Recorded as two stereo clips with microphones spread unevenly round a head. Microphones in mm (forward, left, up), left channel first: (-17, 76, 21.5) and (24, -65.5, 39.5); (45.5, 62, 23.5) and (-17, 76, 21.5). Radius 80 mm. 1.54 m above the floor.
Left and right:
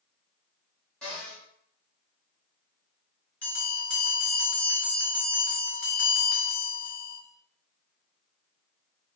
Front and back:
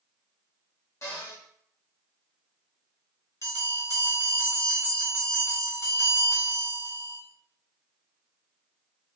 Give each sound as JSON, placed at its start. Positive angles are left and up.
{"t": 1.0, "sound": "a cupboard door", "azimuth_deg": 20, "distance_m": 1.5}
{"t": 3.4, "sound": "a bell", "azimuth_deg": 25, "distance_m": 1.8}